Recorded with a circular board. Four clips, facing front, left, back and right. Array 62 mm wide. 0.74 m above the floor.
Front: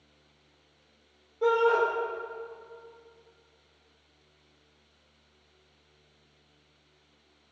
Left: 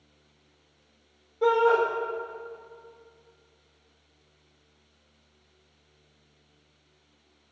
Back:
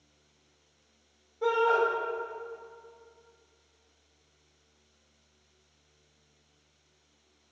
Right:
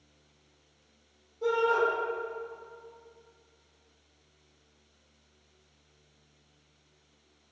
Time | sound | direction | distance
1.4 | a shout | 65° left | 2 m